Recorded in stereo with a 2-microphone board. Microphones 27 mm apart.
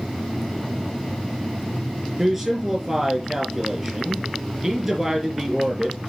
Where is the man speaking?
15° right (ahead or behind), 4 m.